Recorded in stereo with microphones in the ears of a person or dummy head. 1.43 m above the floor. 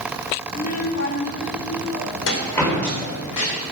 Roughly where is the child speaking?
Left.